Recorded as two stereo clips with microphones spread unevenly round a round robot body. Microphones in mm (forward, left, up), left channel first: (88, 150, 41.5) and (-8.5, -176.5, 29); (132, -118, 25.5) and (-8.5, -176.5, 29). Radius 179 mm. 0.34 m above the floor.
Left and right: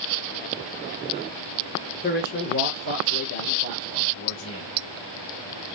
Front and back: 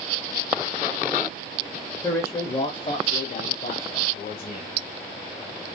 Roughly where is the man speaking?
Left.